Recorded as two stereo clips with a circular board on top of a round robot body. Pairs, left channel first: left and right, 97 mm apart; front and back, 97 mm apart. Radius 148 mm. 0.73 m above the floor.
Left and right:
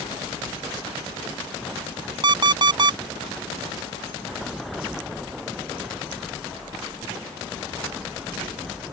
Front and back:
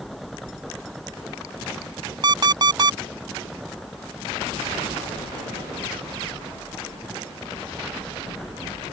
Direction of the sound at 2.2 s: 135° right.